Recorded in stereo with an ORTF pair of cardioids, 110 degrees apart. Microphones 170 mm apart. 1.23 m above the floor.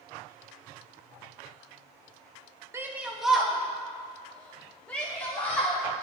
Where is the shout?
15° right, 0.8 m; by 5.8 s 10° left, 4.5 m.